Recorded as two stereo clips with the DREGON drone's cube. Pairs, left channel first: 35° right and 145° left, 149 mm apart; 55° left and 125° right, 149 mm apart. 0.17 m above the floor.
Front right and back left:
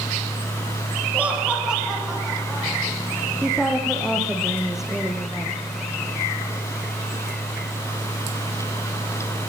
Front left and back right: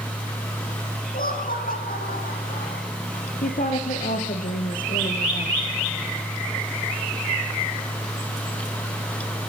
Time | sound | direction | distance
1.1 | laughter | 65° left | 5.5 m
3.4 | a woman speaking | 60° left | 3 m